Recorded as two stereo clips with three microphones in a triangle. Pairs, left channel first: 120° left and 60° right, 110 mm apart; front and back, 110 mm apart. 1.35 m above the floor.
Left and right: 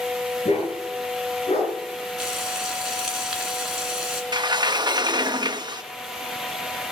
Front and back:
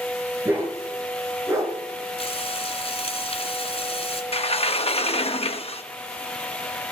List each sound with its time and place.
0.5 s a dog barking: 110° left, 6.5 m; by 1.7 s 120° left, 4.5 m
2.2 s frying: 25° left, 3 m
4.3 s a sliding door: 15° right, 1.0 m